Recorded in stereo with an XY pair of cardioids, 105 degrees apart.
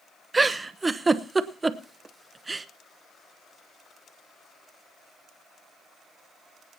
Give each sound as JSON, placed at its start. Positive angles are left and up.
{"t": 0.3, "sound": "a giggle", "azimuth_deg": -20, "distance_m": 0.8}